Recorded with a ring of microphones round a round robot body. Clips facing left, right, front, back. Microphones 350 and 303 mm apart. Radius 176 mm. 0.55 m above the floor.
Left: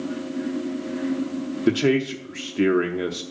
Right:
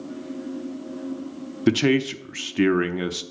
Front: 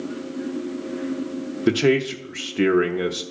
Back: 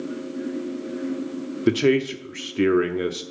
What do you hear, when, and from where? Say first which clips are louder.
1.7 s a man speaking: right 1 dB, even; 100° right, 0.6 m